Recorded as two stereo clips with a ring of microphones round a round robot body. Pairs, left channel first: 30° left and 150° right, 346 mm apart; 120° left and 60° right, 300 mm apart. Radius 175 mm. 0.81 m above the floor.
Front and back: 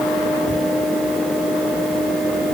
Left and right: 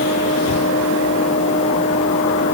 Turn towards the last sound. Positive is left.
No sound to turn to.